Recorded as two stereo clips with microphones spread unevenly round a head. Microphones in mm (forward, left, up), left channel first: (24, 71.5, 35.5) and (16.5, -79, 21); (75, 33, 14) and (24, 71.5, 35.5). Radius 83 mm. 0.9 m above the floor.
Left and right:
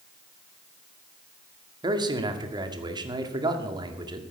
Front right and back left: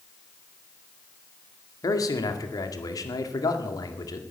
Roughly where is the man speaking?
Ahead right.